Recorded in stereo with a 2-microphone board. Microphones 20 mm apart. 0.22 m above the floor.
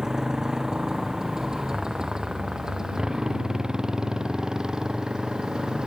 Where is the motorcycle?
30° right (ahead or behind); by 5.9 s 40° right (ahead or behind).